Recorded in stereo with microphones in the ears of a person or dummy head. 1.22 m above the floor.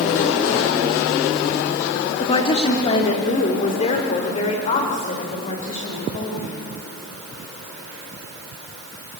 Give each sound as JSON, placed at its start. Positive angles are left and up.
{"t": 2.2, "sound": "a woman speaking", "side_deg": 25, "distance_m": 1.9}